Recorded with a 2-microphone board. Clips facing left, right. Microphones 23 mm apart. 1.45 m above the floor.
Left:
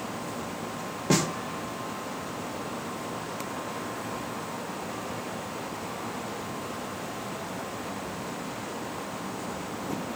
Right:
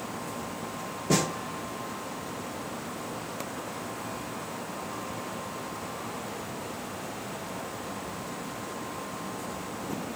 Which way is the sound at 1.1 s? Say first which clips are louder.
Left 1 dB; 35° left (ahead or behind).